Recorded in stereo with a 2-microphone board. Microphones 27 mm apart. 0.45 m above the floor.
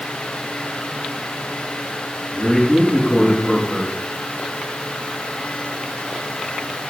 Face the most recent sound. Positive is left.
turn(degrees=10)  # may be behind; listen again after turning